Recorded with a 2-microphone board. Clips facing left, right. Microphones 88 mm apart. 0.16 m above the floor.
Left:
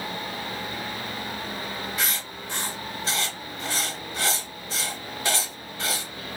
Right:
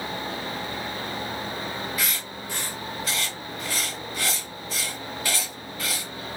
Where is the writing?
25° left (ahead or behind), 1.1 m.